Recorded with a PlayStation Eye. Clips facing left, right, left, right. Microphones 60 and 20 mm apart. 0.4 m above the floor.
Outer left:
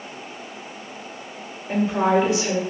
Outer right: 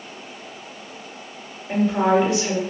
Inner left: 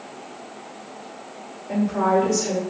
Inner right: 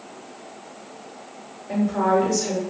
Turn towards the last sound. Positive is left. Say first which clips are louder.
# outer right 1 dB, even
turn(degrees=0)  # may be behind; listen again after turning